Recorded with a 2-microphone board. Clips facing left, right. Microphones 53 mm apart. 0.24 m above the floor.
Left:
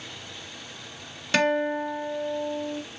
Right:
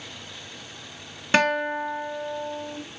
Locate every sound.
1.3 s a guitar: 25° right (ahead or behind), 1.1 m